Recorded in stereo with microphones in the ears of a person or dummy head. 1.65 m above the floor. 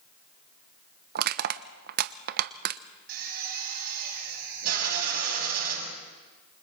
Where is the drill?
55° right (ahead or behind), 8.5 m.